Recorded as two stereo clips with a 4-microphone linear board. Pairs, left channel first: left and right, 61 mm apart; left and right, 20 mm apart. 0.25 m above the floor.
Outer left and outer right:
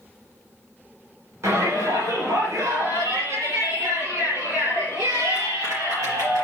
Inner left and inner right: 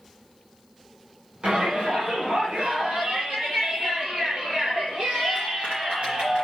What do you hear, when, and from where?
1.4 s a shout: 50° right (ahead or behind), 2 m; by 6.4 s 55° right (ahead or behind), 3.5 m